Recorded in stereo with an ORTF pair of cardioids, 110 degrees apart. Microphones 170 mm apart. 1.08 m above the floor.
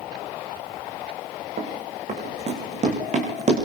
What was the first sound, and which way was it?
Running footsteps, 45° right.